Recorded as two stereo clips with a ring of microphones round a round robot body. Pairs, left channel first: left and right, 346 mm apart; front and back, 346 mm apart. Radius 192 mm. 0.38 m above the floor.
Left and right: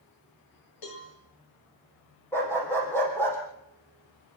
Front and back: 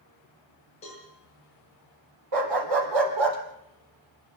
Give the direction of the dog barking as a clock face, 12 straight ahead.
6 o'clock.